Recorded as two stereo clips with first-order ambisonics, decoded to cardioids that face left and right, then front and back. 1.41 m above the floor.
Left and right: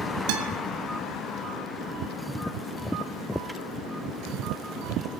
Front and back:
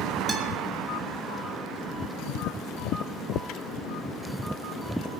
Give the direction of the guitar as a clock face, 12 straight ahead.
3 o'clock.